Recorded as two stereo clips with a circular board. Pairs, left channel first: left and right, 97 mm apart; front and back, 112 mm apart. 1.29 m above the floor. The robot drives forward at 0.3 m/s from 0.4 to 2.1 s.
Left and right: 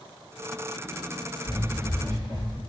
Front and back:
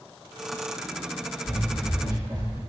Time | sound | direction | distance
1.4 | running footsteps | 155° left | 1.5 m